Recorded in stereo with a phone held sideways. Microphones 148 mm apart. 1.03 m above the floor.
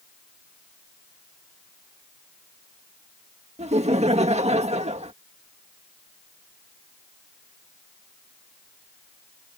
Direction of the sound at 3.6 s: 45° right (ahead or behind).